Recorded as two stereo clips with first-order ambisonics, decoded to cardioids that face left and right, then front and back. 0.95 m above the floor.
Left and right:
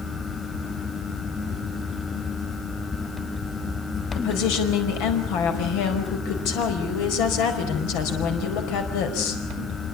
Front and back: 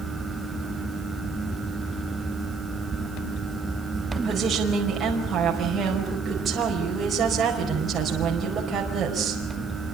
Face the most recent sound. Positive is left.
turn(degrees=105)